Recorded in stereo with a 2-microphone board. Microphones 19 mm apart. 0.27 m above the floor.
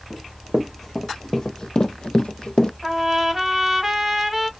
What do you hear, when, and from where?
0.1 s running footsteps: centre (ahead or behind), 1.3 m; by 2.7 s 65° left (ahead or behind), 0.6 m
2.8 s a trumpet: 15° right (ahead or behind), 0.9 m